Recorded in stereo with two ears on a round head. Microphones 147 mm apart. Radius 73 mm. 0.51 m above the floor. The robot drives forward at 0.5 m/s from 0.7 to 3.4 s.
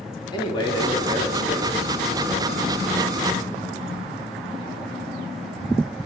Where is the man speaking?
30° left (ahead or behind), 1.1 m; by 3.1 s 15° left (ahead or behind), 1.8 m.